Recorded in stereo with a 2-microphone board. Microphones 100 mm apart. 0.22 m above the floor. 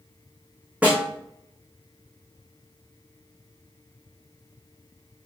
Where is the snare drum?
15° right (ahead or behind), 2 m.